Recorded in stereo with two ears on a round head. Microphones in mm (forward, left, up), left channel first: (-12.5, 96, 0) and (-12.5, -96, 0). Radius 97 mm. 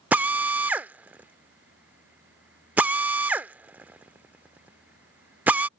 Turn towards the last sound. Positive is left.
turn(degrees=-10)  # may be behind; listen again after turning